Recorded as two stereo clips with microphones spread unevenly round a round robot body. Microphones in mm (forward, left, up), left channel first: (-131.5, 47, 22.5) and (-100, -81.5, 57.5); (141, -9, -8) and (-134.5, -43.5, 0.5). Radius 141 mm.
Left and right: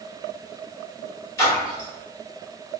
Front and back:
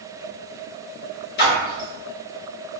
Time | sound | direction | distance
1.4 | a splash | 50° left | 0.8 m